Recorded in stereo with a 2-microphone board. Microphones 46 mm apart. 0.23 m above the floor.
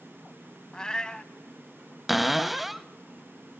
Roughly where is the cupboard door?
Centre.